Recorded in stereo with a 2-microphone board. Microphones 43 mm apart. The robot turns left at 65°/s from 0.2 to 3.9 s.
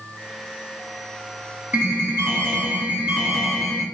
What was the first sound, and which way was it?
An alarm, 60° right.